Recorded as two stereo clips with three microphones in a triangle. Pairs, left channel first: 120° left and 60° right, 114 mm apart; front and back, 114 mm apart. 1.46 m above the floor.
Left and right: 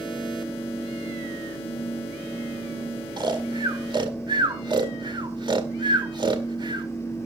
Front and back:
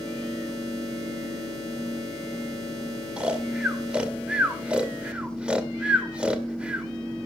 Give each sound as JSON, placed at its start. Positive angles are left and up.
{"t": 3.2, "sound": "snoring", "azimuth_deg": -100, "distance_m": 1.9}